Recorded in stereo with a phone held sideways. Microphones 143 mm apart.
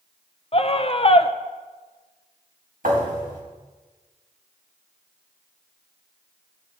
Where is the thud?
75° right (ahead or behind), 4.5 m.